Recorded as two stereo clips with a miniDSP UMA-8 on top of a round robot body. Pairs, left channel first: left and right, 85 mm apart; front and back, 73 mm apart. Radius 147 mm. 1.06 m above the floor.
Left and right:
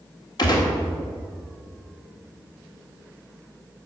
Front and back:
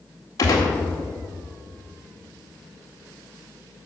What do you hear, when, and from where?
0.4 s a gunshot: 50° left, 1.9 m